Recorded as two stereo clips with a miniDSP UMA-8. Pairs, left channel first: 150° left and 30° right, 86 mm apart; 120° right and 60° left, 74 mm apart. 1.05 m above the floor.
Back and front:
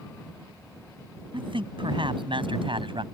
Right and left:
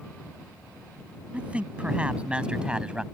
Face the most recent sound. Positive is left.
turn(degrees=-15)